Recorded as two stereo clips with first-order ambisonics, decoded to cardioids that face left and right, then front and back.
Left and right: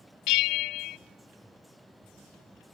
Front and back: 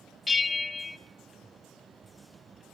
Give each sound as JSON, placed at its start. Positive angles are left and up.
{"t": 0.3, "sound": "a bell", "azimuth_deg": 75, "distance_m": 0.7}